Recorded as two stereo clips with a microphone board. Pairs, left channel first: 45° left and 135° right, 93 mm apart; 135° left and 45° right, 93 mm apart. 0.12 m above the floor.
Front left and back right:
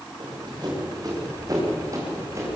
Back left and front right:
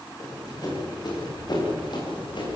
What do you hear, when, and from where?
0.2 s running footsteps: 175° right, 9 m; by 2.6 s 165° left, 9 m